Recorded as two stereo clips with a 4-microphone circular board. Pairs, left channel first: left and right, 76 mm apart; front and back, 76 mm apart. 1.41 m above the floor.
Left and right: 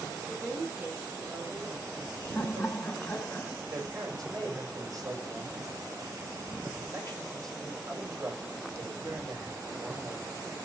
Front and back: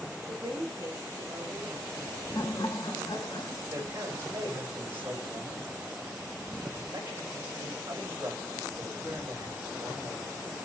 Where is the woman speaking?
160° right, 6 m; by 3.4 s 125° right, 5.5 m.